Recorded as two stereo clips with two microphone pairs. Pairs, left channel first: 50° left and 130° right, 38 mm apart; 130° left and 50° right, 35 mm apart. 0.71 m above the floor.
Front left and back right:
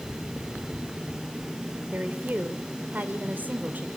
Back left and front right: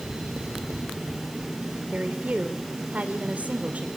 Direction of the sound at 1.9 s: 95° right.